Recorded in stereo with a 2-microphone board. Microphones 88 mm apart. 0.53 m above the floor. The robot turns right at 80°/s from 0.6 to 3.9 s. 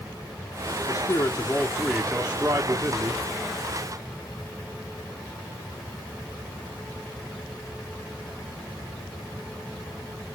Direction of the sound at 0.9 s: 85° left.